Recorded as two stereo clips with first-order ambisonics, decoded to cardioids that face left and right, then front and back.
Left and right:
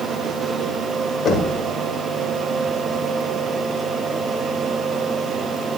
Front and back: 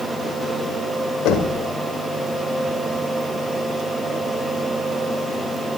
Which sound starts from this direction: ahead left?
Knocking, at 1.2 s.